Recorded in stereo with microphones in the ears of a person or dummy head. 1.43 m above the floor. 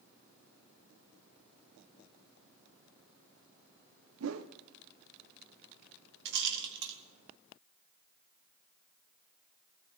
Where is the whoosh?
70° right (ahead or behind), 0.8 m.